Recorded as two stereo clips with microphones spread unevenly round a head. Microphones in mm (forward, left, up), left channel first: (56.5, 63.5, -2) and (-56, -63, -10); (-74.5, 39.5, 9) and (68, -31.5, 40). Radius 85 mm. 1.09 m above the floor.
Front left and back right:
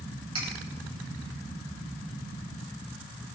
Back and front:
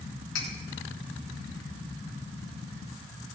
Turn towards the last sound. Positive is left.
turn(degrees=170)